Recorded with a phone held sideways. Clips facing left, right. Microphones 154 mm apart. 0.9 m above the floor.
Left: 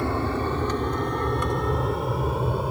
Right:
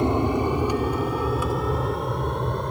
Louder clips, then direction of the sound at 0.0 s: Right 4 dB; 20° right (ahead or behind).